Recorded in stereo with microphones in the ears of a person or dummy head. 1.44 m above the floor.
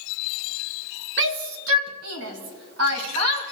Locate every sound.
1.2 s a shout: 65° right (ahead or behind), 0.9 m; by 3.4 s 80° right, 2.5 m